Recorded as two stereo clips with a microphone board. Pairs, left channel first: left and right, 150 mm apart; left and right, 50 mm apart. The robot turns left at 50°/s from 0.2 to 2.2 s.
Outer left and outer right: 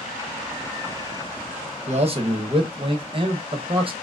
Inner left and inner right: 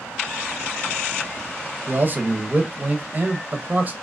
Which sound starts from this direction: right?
A man speaking, at 1.9 s.